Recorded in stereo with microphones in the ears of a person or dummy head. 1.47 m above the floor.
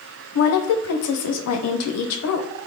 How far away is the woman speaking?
About 0.6 m.